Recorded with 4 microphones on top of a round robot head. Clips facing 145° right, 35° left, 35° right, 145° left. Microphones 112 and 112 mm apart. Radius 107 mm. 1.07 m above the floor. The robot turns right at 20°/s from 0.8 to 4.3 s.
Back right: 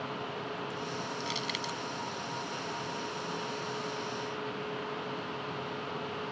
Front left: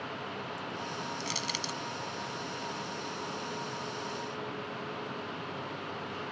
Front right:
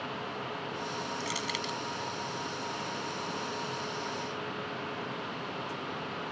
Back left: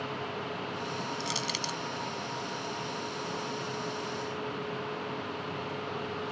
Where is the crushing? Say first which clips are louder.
Back right 1 dB, even; 80° left; by 1.8 s 95° left.